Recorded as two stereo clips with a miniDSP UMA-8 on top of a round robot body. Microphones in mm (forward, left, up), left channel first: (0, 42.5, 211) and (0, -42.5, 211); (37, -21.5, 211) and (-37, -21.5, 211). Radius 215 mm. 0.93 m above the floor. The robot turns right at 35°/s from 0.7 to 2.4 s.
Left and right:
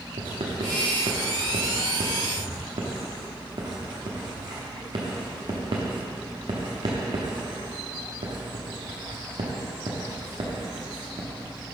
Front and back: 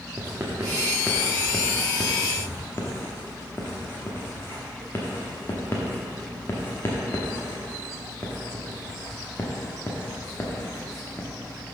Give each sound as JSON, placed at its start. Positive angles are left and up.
{"t": 0.2, "sound": "writing", "azimuth_deg": -115, "distance_m": 0.8}